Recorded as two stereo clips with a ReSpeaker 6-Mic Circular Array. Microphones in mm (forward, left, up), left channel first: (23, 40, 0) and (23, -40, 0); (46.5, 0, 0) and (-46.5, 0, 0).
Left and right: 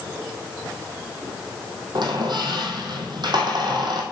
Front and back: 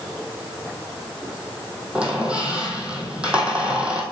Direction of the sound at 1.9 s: 100° right.